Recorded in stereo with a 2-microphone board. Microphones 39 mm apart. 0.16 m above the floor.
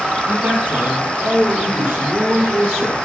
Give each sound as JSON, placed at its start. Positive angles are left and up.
{"t": 0.3, "sound": "a man speaking", "side_deg": -50, "distance_m": 4.5}